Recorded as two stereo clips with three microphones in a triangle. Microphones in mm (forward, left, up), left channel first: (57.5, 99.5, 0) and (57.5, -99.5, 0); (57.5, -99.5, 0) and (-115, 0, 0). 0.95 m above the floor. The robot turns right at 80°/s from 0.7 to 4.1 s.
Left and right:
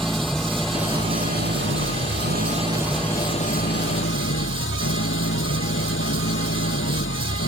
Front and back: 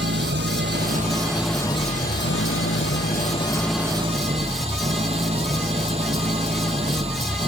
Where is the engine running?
Straight behind; by 7.5 s 90° left.